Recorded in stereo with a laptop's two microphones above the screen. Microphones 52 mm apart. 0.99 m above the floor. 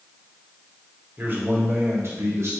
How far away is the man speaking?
About 1.2 m.